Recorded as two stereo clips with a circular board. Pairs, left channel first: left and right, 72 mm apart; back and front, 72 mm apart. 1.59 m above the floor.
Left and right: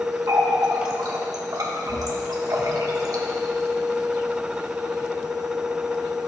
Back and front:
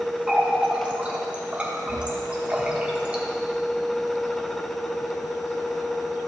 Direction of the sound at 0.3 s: 70° right.